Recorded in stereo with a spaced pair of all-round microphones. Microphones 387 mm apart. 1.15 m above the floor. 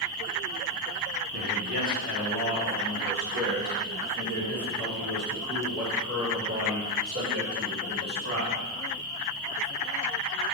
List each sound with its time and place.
1.3 s a man speaking: 80° right, 3 m; by 8.6 s 35° right (ahead or behind), 5 m